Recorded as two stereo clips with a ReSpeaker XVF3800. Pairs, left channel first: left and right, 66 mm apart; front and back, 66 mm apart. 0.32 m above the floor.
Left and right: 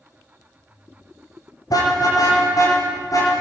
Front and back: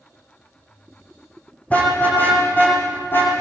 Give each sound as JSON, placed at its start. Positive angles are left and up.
{"t": 1.7, "sound": "a car horn", "azimuth_deg": 70, "distance_m": 8.5}